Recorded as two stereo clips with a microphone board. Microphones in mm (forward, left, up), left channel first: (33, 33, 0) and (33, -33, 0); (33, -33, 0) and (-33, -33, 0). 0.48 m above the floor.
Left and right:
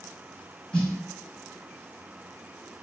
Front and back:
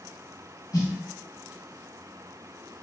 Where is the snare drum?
10° left, 1.3 m.